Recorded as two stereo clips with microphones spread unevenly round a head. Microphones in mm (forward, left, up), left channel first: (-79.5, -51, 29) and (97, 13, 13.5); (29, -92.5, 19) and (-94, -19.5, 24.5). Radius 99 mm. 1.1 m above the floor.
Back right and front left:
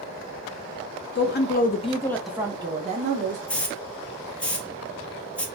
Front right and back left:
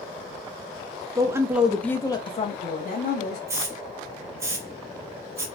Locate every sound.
1.1 s a woman speaking: 145° right, 0.8 m; by 3.4 s 20° right, 1.1 m
3.5 s a hiss: 115° left, 0.6 m